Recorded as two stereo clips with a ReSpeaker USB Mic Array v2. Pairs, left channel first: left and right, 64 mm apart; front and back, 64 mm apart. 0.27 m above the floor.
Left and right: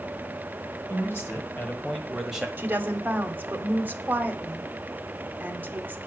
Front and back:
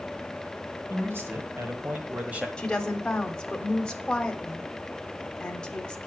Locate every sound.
0.9 s a man speaking: 135° left, 3 m; by 2.5 s 135° right, 1.6 m
2.6 s a woman speaking: 65° right, 1.1 m